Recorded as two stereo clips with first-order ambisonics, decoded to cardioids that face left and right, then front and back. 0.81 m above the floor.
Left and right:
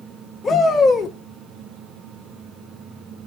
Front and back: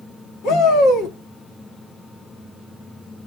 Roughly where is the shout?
Ahead.